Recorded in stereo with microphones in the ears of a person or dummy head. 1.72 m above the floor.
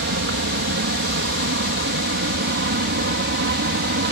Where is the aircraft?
60° right (ahead or behind); by 4.1 s 55° right (ahead or behind).